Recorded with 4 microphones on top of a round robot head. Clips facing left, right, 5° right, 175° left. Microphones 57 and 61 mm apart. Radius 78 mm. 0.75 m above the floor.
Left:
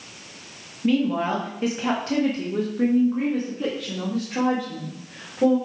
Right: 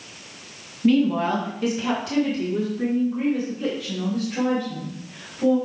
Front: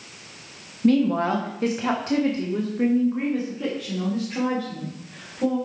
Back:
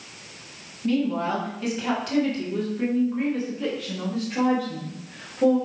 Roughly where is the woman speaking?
Ahead.